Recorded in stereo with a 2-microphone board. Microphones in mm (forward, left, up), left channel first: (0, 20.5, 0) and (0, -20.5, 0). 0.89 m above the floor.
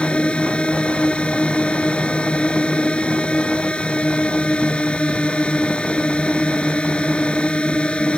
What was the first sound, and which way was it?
A drone, 25° left (ahead or behind).